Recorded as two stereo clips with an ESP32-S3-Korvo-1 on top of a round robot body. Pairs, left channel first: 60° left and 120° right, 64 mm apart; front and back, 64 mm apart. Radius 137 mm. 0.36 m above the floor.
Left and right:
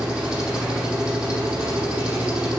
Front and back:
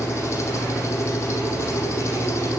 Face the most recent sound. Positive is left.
turn(degrees=-45)